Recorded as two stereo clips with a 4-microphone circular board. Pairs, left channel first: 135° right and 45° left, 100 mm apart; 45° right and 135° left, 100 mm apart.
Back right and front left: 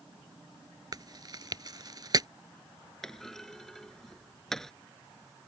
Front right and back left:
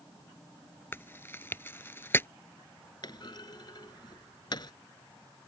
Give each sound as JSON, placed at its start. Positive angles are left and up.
{"t": 0.9, "sound": "chewing", "azimuth_deg": 15}
{"t": 3.0, "sound": "a clunk", "azimuth_deg": -50}